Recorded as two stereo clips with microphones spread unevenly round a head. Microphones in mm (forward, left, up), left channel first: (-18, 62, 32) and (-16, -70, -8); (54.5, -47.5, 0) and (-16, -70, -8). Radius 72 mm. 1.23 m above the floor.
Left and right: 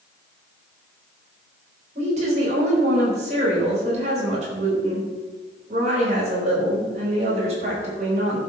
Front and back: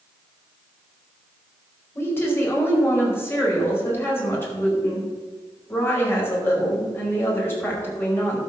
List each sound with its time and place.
1.9 s a woman speaking: 40° right, 5 m